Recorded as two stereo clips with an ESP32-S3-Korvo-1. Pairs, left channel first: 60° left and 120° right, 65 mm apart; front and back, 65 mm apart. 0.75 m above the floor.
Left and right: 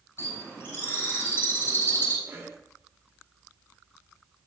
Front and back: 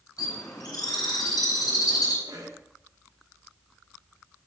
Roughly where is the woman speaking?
No woman speaking in this recording.